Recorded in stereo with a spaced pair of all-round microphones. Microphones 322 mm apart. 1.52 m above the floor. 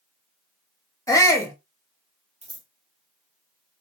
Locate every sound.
1.1 s a shout: 10° left (ahead or behind), 0.7 m
2.4 s scissors: 20° right (ahead or behind), 0.6 m